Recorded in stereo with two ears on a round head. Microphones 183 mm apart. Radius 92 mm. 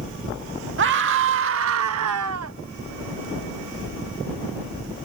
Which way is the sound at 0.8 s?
65° right (ahead or behind).